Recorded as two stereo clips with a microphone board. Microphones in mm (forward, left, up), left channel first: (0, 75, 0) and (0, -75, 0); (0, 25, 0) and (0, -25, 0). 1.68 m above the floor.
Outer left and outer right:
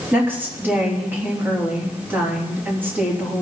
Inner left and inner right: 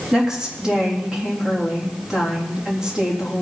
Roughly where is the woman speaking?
Centre.